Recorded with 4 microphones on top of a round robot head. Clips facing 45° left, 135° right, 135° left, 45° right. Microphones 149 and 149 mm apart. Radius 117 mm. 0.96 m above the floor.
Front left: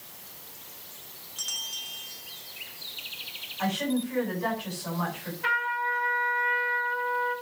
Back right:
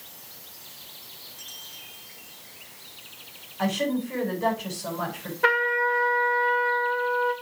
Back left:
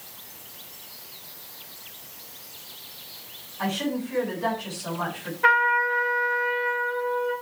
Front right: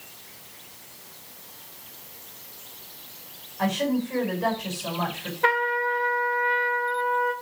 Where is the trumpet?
105° right, 2 m.